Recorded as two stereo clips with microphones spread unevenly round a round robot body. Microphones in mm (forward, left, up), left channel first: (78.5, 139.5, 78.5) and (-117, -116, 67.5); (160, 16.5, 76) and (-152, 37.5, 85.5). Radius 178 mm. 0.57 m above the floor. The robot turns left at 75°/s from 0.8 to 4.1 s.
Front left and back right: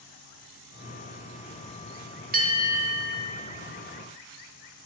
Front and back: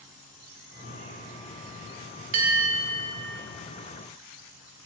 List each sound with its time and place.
2.3 s a bell: straight behind, 1.7 m; by 3.1 s 120° left, 1.7 m